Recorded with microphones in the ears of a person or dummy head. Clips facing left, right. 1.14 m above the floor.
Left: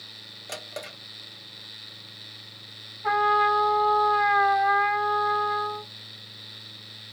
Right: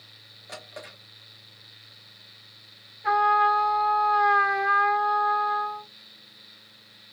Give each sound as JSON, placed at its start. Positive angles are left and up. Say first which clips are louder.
{"t": 0.5, "sound": "a drawer", "louder": "left 4 dB", "side_deg": 50, "distance_m": 1.0}
{"t": 3.0, "sound": "a trumpet", "louder": "right 1 dB", "side_deg": -20, "distance_m": 1.5}